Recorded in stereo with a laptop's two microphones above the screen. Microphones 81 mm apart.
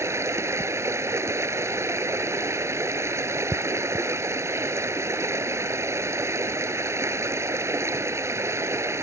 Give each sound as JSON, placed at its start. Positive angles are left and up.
{"t": 0.0, "sound": "running water", "side_deg": -35}